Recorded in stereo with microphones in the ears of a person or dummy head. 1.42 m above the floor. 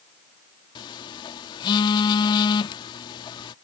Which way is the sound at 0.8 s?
25° left (ahead or behind).